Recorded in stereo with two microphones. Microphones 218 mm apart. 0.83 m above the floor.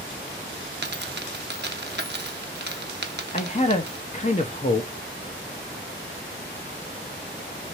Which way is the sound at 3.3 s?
35° left (ahead or behind).